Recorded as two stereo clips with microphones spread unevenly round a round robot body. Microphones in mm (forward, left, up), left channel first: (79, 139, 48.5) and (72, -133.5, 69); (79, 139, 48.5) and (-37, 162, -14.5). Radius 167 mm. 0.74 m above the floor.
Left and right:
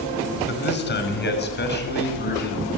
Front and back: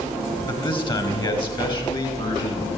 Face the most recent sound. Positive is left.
turn(degrees=40)